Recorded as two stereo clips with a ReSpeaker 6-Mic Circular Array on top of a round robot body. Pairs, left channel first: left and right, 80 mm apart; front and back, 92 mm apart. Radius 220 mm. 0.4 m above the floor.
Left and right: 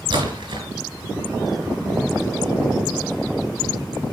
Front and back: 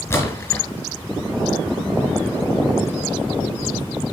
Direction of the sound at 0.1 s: 60° right.